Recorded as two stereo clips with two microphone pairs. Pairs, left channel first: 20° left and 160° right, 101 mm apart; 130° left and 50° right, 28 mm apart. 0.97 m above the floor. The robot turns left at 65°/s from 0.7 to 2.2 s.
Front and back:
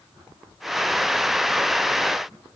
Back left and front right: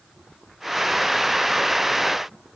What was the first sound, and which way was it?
Only background noise.